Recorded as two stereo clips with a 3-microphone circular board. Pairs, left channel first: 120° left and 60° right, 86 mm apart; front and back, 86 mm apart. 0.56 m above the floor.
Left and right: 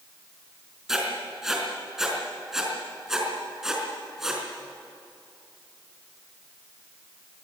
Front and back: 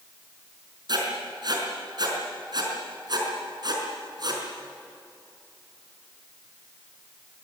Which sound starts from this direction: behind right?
Writing, at 0.9 s.